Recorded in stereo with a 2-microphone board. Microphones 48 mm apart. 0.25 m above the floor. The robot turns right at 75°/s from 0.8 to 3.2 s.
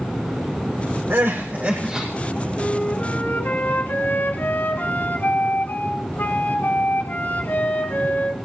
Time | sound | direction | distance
1.1 | crying | 80° right | 9 m
2.6 | a flute | 10° left | 2 m